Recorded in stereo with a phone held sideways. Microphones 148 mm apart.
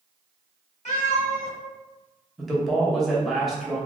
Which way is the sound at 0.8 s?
60° left (ahead or behind).